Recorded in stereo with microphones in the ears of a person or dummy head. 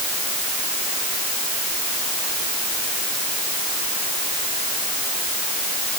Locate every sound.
Only background noise.